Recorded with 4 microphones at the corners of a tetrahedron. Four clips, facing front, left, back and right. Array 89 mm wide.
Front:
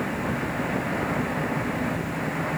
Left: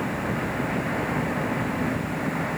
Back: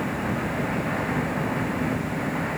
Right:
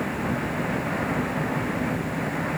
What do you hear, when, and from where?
Only background noise.